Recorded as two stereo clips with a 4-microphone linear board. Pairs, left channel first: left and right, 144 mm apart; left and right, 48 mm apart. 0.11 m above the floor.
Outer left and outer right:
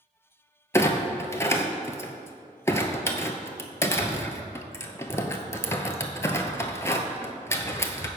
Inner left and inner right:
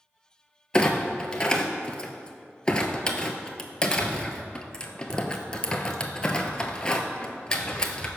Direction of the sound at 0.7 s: 20° left (ahead or behind).